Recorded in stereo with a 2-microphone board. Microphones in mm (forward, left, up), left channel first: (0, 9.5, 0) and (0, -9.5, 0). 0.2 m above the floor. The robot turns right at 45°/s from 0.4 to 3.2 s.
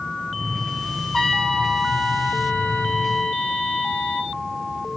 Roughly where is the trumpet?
Ahead.